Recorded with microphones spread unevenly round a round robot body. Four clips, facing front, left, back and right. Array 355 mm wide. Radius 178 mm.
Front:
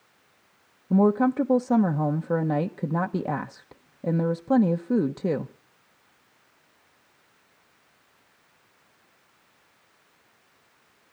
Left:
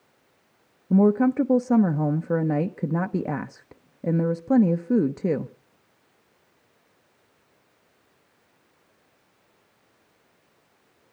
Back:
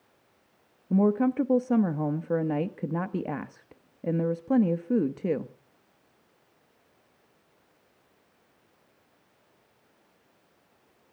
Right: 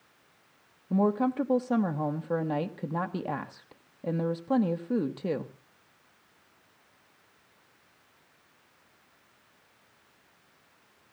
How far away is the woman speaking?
About 1.0 m.